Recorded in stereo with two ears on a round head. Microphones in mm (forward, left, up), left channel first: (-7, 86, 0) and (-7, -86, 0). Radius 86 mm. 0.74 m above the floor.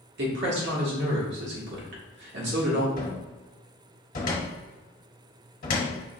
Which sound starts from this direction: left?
A cupboard door, at 3.0 s.